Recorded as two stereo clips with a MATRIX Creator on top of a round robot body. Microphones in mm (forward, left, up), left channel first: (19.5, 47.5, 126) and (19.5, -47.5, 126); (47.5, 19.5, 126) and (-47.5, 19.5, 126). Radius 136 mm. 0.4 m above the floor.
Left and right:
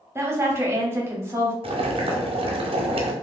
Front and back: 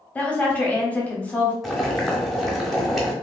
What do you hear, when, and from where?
0.1 s a woman speaking: 60° right, 1.2 m
1.6 s boiling: 90° right, 0.8 m